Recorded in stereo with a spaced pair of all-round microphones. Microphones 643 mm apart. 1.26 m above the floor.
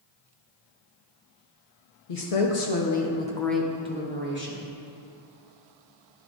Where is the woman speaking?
80° left, 0.8 m; by 4.7 s 20° right (ahead or behind), 1.5 m.